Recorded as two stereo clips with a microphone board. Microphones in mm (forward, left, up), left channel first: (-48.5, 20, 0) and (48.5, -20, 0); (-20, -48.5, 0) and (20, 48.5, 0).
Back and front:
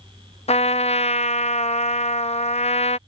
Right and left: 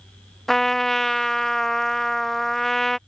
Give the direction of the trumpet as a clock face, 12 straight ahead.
7 o'clock.